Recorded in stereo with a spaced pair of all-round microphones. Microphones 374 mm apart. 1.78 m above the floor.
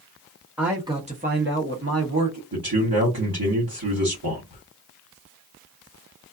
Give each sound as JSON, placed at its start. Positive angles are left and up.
{"t": 0.6, "sound": "a man speaking", "side_deg": 0, "distance_m": 0.8}
{"t": 2.5, "sound": "a man speaking", "side_deg": -65, "distance_m": 1.3}